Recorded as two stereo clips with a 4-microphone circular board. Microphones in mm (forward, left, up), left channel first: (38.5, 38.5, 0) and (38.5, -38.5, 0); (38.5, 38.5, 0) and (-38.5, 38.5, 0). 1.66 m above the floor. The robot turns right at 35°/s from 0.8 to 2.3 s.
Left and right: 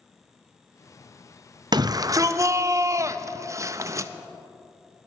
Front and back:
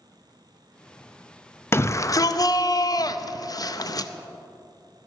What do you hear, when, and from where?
1.7 s a shout: 60° right, 0.6 m; by 4.1 s 40° right, 0.6 m